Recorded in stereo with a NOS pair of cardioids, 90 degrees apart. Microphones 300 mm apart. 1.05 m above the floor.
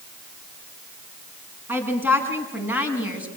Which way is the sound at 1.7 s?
5° right.